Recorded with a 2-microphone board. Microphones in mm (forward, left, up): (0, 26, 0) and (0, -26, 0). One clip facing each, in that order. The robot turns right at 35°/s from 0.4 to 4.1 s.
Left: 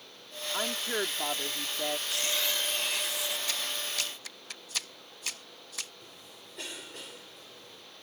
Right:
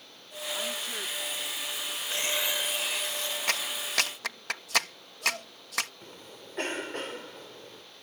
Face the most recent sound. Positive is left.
turn(degrees=-50)  # may be behind; listen again after turning